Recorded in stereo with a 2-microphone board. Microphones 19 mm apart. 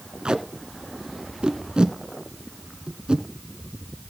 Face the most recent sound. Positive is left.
turn(degrees=-70)  # may be behind; listen again after turning